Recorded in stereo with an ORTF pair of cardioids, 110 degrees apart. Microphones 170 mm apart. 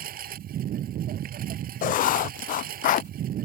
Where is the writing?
55° left.